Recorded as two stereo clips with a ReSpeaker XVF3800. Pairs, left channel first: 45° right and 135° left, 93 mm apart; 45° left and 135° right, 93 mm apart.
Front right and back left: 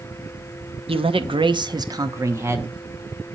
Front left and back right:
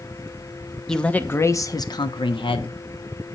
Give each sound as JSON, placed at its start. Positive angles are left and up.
{"t": 0.9, "sound": "a man speaking", "azimuth_deg": 130, "distance_m": 0.8}